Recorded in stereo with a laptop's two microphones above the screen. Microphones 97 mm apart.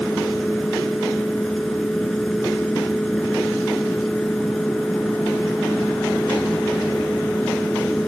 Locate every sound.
0.0 s a fan: 5° left (ahead or behind)